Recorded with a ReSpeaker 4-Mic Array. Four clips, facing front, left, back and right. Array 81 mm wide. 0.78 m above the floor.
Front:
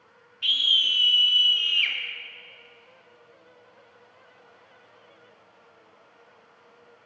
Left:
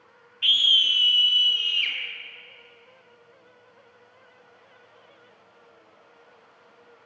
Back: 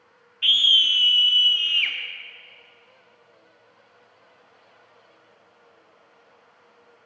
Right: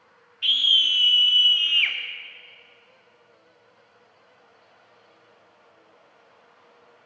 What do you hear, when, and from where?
0.4 s a scream: 160° left, 1.0 m; by 2.0 s 100° right, 1.1 m